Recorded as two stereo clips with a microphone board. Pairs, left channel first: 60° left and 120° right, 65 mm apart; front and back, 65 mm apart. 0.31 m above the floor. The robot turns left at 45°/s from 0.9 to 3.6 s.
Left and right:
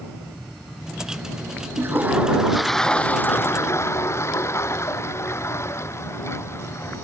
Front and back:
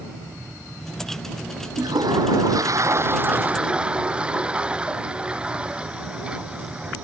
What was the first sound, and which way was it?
A toilet flushing, 170° right.